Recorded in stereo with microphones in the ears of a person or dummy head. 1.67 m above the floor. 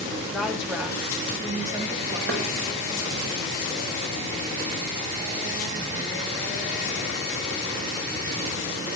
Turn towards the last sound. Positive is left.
turn(degrees=-55)  # may be behind; listen again after turning